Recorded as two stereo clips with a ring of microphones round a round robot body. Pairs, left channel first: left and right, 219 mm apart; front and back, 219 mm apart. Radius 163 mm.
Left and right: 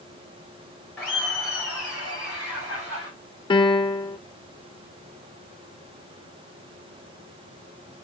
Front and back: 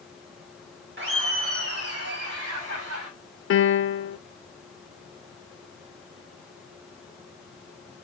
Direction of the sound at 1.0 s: 175° left.